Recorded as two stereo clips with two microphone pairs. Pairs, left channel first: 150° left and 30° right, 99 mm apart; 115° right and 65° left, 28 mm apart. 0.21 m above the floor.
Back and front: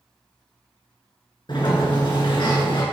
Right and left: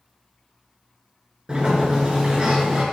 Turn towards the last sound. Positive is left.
turn(degrees=120)